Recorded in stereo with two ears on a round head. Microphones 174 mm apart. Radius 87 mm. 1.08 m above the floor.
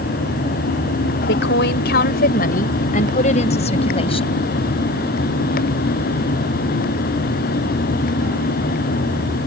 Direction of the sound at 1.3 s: 65° left (ahead or behind).